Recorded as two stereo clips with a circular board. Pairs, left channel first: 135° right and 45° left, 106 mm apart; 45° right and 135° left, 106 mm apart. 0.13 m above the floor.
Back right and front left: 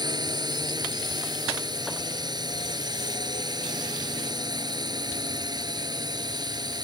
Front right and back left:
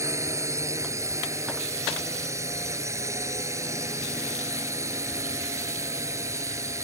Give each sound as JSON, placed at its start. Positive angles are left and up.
{"t": 0.0, "sound": "a drone", "azimuth_deg": 80}